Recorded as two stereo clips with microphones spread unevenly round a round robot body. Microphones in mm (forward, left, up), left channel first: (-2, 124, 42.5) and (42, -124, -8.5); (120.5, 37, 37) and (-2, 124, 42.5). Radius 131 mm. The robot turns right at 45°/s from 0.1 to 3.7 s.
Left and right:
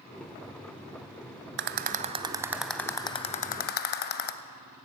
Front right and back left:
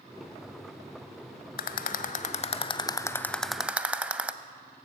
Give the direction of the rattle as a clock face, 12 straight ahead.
1 o'clock.